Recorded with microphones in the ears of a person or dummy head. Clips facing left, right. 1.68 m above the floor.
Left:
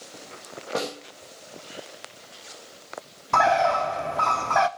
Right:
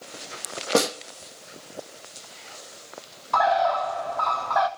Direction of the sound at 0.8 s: 65° right (ahead or behind).